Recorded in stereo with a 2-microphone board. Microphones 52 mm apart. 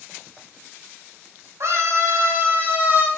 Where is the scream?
60° right (ahead or behind), 2.5 m; by 3.1 s 30° right (ahead or behind), 2.0 m.